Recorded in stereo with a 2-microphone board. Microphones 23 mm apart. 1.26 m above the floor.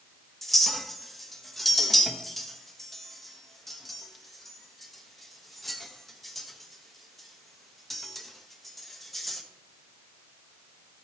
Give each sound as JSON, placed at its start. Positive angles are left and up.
{"t": 0.4, "sound": "a clink", "side_deg": 5, "distance_m": 1.1}